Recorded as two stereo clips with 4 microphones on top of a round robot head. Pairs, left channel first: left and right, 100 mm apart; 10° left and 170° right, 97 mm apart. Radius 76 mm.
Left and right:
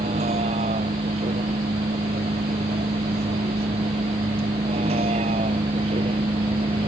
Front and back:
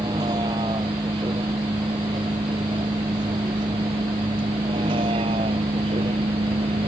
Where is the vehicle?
110° right; by 6.9 s 125° right.